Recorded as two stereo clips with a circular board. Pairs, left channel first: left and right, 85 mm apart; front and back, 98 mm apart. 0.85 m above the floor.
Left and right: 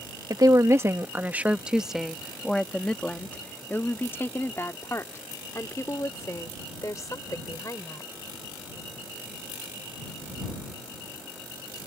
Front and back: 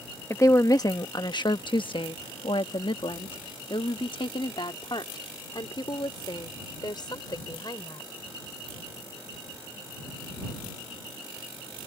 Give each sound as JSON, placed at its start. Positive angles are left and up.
{"t": 0.3, "sound": "a woman speaking", "azimuth_deg": -55}